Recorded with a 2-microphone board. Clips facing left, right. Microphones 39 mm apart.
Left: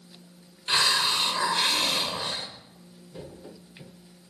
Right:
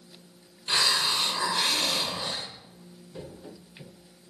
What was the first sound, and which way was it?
A hiss, 20° left (ahead or behind).